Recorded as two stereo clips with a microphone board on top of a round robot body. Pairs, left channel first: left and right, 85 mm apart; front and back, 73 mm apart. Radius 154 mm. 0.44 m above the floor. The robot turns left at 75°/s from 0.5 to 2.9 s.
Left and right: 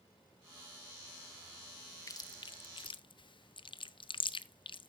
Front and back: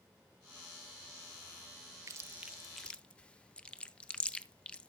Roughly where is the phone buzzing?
I don't hear a phone buzzing.